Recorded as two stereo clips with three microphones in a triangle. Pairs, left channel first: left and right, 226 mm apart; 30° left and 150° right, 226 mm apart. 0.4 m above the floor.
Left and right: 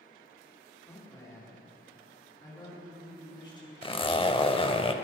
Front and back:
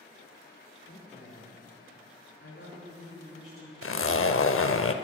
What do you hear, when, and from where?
0.9 s a man speaking: 15° left, 3.5 m; by 3.7 s 20° left, 5 m
3.8 s a zipper: 30° left, 0.5 m